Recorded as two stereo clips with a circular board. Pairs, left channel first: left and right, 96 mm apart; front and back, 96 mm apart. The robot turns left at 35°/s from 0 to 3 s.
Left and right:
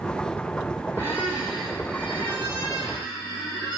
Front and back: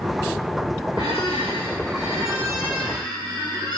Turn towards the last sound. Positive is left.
turn(degrees=130)